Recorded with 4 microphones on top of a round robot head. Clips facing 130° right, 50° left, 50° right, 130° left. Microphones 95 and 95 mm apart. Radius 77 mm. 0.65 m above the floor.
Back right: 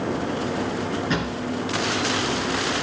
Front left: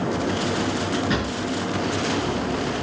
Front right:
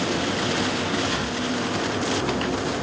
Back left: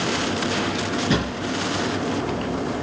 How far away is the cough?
No cough in this recording.